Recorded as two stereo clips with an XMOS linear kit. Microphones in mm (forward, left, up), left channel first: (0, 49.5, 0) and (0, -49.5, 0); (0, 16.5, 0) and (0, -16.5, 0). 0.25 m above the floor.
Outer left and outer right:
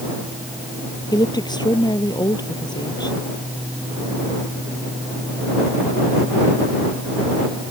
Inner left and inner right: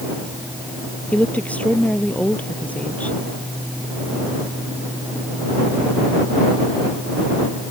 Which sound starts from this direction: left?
A woman speaking, at 1.1 s.